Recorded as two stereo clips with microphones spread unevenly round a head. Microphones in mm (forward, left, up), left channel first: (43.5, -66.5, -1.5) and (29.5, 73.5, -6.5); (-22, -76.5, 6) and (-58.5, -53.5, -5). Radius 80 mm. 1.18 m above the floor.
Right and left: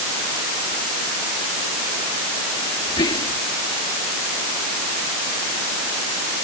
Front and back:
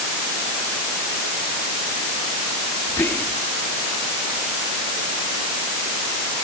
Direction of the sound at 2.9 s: 30° right.